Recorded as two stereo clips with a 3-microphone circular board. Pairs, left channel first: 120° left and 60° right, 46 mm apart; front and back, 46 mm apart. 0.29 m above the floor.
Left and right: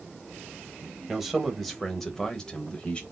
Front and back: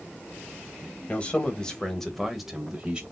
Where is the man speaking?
20° left, 1.4 m; by 3.0 s 145° left, 1.3 m.